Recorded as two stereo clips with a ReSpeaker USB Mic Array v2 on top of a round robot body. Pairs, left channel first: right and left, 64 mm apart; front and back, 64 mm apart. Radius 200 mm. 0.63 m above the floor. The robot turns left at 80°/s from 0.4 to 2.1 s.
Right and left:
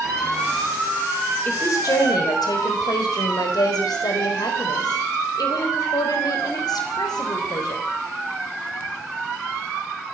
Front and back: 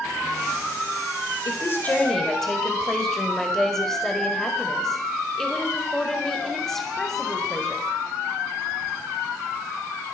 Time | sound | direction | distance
1.4 | a woman speaking | 30° right | 4.5 m